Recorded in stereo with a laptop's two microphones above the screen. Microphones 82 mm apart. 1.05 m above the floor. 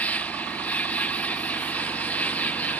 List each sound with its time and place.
0.0 s an insect: 20° left (ahead or behind)